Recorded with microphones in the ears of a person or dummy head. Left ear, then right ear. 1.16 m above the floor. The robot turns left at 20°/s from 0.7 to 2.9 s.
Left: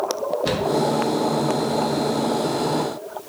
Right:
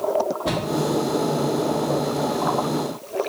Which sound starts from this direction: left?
A cupboard door, at 0.5 s.